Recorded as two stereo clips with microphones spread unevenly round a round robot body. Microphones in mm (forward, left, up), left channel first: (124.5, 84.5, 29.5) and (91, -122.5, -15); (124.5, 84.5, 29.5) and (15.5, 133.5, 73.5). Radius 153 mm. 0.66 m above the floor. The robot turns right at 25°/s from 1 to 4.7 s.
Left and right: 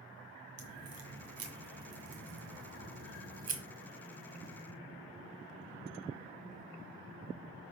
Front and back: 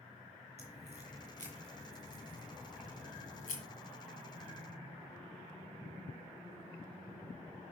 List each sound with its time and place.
0.6 s a crack: 140° right, 1.9 m; by 3.6 s 75° right, 1.9 m